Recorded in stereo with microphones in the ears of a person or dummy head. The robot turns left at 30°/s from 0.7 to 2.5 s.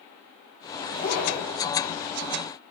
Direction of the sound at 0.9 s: 40° left (ahead or behind).